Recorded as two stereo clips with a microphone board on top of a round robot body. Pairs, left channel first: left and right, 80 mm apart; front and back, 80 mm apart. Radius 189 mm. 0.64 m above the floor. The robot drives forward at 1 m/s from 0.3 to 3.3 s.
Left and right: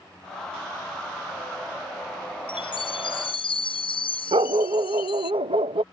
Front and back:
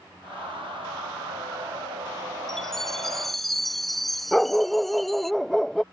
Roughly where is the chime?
Left.